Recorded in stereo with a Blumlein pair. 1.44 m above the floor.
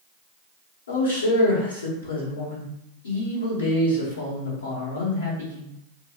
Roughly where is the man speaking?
Ahead left.